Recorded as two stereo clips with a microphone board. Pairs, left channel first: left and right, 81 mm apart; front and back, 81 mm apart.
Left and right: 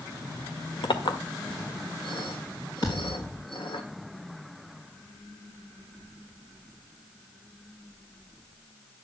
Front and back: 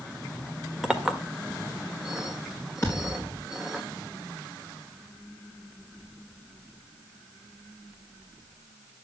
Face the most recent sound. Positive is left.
turn(degrees=60)